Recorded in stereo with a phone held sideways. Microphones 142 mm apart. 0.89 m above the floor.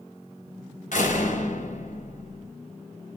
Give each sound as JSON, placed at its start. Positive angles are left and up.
{"t": 0.9, "sound": "a door slam", "side_deg": 75, "distance_m": 4.0}